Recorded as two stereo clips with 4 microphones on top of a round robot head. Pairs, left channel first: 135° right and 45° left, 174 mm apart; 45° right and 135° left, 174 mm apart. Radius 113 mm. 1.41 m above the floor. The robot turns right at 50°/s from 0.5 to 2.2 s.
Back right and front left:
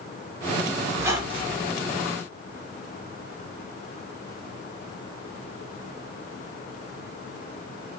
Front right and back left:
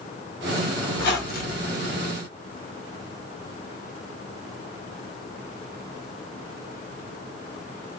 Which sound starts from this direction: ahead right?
A squeak, at 0.9 s.